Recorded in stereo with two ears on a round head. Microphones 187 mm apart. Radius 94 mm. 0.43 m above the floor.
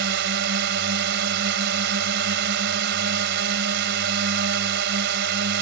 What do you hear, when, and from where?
0.0 s a drone: 60° right (ahead or behind)